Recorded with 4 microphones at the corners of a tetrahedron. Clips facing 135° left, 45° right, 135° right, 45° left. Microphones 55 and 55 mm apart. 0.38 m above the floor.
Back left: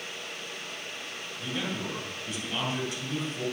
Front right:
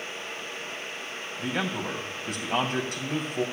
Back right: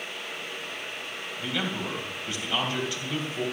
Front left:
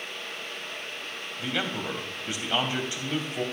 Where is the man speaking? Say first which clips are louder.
Front right 4 dB, even; 20° right, 2.5 m.